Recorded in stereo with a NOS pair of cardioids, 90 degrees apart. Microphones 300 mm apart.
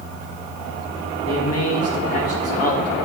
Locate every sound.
1.2 s a man speaking: 55° left, 1.5 m